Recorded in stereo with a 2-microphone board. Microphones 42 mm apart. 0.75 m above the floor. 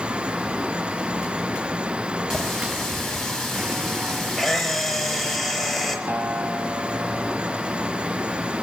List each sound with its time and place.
2.3 s a running tap: 10° left (ahead or behind), 3.5 m
4.4 s a camera shutter: 5° right (ahead or behind), 5 m
6.1 s a guitar: 80° right, 3 m